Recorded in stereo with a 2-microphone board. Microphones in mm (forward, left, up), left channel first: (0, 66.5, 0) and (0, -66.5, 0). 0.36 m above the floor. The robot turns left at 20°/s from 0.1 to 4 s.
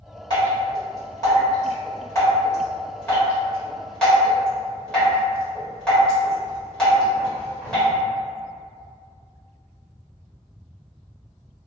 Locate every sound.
0.3 s dripping: 35° left (ahead or behind), 1.4 m; by 7.9 s 5° left (ahead or behind), 1.4 m